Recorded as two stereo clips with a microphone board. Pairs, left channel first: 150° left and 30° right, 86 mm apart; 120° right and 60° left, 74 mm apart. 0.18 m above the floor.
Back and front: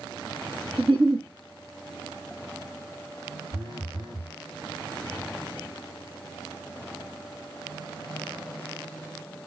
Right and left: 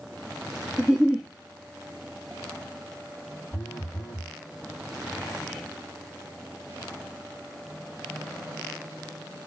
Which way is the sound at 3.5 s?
50° right.